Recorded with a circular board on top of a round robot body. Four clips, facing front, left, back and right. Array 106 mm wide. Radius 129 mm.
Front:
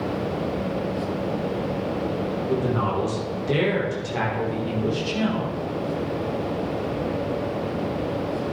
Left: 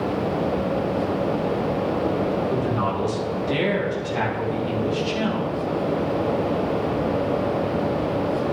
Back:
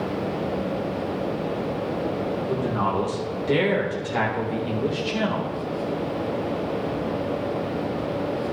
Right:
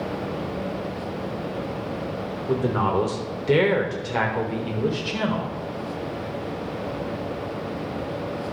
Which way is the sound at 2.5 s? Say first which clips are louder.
Even, front 2 dB; 85° right.